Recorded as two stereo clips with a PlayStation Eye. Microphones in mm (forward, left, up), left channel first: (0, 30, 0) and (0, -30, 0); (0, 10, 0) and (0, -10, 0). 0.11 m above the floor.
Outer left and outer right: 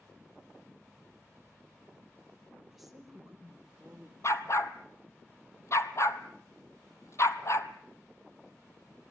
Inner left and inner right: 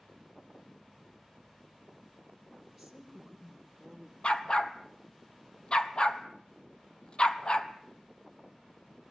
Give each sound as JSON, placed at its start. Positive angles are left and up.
{"t": 2.7, "sound": "a woman speaking", "side_deg": -5, "distance_m": 4.0}
{"t": 4.2, "sound": "a dog barking", "side_deg": 50, "distance_m": 1.1}